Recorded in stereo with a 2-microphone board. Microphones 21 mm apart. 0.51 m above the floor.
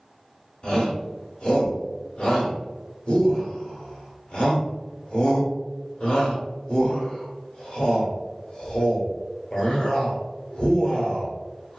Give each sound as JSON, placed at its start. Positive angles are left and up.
{"t": 0.6, "sound": "a shout", "side_deg": 55, "distance_m": 1.5}